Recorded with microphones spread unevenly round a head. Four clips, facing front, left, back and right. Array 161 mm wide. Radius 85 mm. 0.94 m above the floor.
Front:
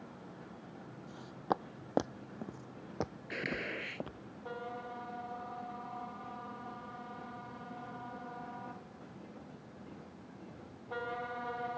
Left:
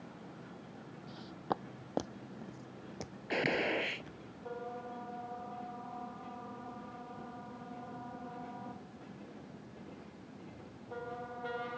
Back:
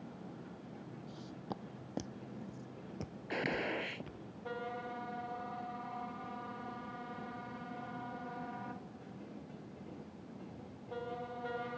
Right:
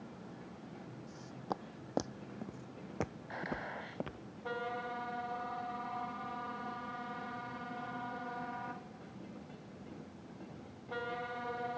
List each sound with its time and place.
1.1 s footsteps: 35° left; by 4.2 s 45° right
3.3 s a gunshot: 100° left